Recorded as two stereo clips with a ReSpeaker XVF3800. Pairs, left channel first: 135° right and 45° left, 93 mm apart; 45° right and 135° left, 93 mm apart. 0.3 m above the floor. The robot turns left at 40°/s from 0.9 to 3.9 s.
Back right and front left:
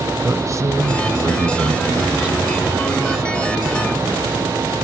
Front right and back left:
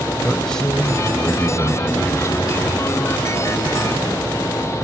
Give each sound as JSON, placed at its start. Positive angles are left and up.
{"t": 0.2, "sound": "a man speaking", "azimuth_deg": 35, "distance_m": 1.6}